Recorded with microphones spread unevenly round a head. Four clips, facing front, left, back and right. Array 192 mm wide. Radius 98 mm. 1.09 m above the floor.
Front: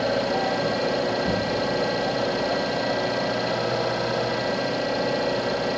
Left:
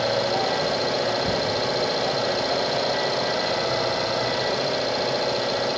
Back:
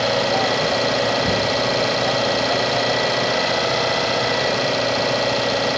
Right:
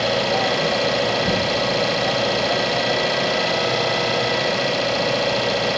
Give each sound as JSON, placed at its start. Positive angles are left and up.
{"t": 0.0, "sound": "an engine running", "azimuth_deg": -155, "distance_m": 1.1}